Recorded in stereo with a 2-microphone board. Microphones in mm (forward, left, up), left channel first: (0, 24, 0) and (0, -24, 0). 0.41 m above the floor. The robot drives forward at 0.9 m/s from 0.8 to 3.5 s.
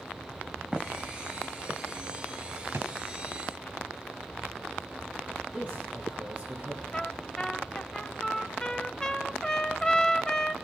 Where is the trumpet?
15° left (ahead or behind), 1.1 m.